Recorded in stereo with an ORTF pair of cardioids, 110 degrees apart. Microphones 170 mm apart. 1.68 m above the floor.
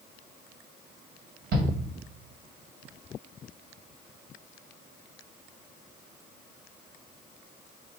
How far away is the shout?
About 1.5 m.